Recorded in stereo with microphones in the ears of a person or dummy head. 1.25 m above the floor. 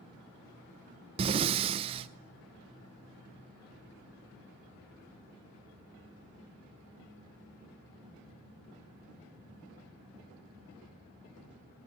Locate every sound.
1.2 s breathing: 30° right (ahead or behind), 0.6 m